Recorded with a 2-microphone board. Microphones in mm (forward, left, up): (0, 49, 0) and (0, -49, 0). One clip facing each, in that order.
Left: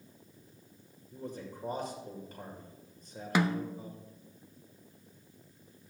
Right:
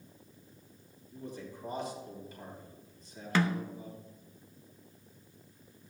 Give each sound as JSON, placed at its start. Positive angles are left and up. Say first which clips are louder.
{"t": 1.1, "sound": "a man speaking", "louder": "left 1 dB", "side_deg": 50, "distance_m": 2.0}
{"t": 3.4, "sound": "a snare drum", "louder": "left 1 dB", "side_deg": 15, "distance_m": 0.5}